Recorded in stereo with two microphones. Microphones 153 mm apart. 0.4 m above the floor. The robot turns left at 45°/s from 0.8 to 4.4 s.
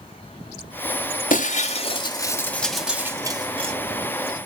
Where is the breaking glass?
65° left, 1.3 m; by 3.7 s 45° right, 1.3 m.